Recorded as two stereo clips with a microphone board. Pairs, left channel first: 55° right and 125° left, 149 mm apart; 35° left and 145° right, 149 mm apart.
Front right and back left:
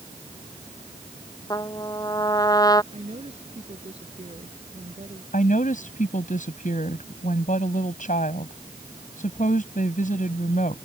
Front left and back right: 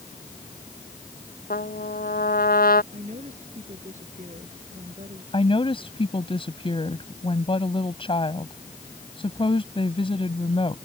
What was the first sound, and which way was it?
A trumpet, 10° left.